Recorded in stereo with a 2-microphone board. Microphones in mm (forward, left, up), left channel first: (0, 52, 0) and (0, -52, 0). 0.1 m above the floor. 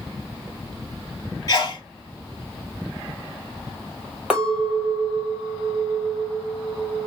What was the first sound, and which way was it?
A sneeze, 35° left (ahead or behind).